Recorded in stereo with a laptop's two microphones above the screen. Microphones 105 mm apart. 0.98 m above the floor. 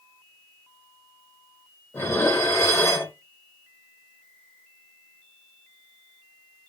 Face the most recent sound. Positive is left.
turn(degrees=20)  # may be behind; listen again after turning